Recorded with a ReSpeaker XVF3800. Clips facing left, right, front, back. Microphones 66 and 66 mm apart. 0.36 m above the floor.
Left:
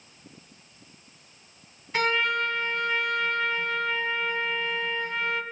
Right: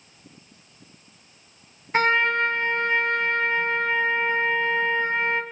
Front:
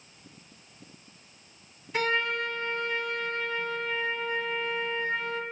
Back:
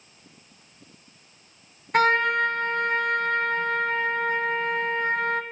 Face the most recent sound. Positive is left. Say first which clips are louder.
# right 5 dB, back 8 dB
turn(degrees=-145)